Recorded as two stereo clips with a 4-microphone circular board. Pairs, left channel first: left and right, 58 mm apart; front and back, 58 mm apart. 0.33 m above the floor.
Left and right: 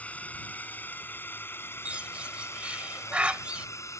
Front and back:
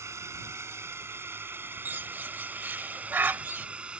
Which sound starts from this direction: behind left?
A drone, at 0.0 s.